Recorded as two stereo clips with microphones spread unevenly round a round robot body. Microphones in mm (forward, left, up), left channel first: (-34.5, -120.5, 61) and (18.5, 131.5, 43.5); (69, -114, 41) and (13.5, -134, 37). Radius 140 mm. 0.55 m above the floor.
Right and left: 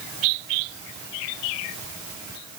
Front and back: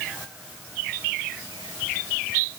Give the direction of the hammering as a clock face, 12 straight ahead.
No hammering in this recording.